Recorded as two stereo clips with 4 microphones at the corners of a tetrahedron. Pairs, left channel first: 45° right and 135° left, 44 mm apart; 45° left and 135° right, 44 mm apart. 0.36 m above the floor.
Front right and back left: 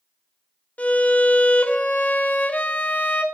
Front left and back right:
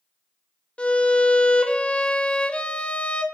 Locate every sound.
0.8 s a violin: 5° right, 1.0 m